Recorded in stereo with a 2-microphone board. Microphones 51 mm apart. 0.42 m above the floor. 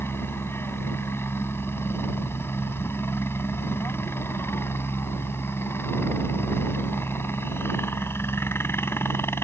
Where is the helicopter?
50° left (ahead or behind).